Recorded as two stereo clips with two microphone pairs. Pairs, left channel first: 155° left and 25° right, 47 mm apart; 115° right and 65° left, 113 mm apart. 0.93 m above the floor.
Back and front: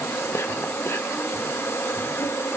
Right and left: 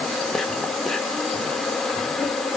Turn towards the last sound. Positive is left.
turn(degrees=160)